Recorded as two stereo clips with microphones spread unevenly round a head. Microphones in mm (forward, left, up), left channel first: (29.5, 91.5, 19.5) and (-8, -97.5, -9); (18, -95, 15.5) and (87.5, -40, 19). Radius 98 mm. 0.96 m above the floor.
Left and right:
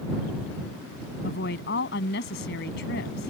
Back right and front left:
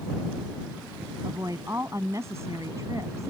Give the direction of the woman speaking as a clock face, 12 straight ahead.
8 o'clock.